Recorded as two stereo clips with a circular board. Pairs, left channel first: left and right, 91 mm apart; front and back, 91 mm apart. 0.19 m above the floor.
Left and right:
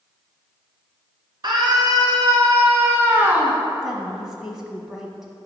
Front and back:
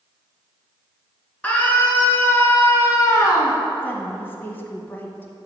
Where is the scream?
70° right, 2.5 m; by 3.6 s 20° right, 1.8 m.